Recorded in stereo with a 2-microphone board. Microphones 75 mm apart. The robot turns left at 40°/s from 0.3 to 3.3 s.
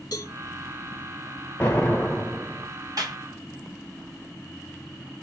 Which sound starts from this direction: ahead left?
An explosion, at 1.6 s.